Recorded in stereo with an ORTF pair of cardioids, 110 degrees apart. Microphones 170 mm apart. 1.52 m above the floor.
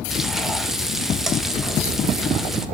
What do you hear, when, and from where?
0.1 s frying: straight ahead, 2 m